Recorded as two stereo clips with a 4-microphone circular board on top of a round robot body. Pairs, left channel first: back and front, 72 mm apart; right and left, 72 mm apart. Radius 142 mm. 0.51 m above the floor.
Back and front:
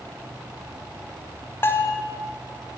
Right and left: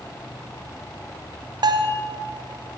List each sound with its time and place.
1.6 s a bell: 120° left, 0.8 m